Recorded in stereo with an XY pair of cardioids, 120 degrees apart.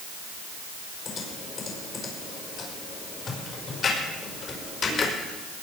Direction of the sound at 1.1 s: 45° left.